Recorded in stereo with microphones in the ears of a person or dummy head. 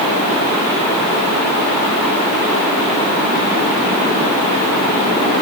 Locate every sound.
Only background noise.